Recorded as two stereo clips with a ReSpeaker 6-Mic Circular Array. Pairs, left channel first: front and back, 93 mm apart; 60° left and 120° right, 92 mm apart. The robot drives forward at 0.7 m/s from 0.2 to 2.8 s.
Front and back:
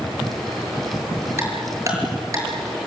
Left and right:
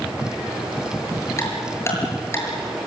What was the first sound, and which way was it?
Ticking, 120° left.